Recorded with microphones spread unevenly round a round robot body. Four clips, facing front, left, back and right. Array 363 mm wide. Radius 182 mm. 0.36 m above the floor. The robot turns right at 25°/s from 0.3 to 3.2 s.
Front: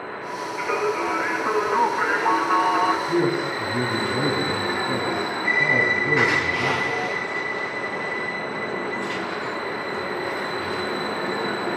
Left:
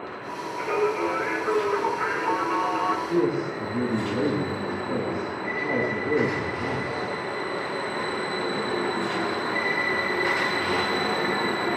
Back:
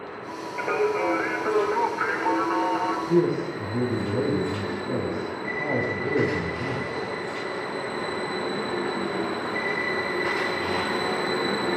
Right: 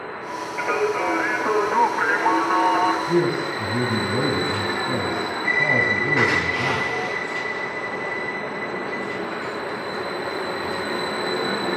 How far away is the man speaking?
About 3 m.